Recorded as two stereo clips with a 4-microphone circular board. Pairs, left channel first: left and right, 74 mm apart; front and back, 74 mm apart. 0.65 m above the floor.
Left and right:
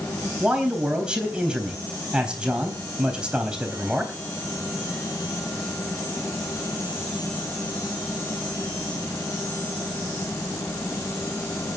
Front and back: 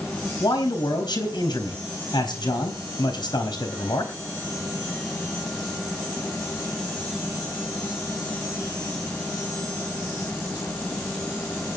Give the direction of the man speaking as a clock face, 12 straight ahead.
12 o'clock.